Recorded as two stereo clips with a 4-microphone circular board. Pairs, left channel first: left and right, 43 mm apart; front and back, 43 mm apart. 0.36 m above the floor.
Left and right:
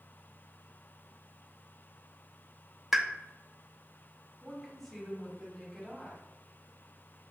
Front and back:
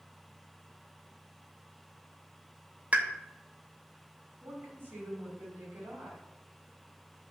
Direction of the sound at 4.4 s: 165° left.